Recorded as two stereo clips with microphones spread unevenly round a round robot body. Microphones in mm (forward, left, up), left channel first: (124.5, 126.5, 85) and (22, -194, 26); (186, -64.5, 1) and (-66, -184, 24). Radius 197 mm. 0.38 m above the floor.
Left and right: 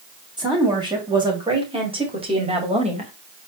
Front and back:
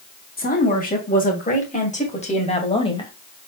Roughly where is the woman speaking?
Ahead right.